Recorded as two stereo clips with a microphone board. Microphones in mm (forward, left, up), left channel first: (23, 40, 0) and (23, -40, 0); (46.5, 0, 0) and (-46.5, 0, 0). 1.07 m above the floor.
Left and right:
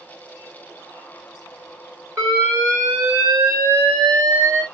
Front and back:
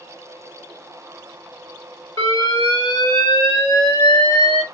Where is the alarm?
30° right, 4 m.